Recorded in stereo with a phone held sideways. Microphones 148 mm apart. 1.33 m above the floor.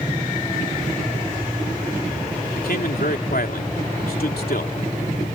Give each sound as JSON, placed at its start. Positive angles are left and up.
{"t": 2.6, "sound": "a man speaking", "side_deg": 85}